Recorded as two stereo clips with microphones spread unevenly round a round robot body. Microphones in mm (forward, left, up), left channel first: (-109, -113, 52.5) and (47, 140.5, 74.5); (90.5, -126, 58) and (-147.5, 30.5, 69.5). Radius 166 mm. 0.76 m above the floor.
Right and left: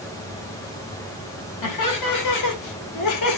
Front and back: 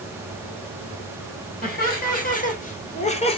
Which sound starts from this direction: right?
Laughter, at 1.6 s.